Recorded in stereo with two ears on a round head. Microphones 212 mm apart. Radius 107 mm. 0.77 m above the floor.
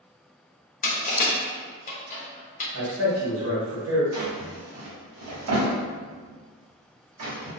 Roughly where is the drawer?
Right.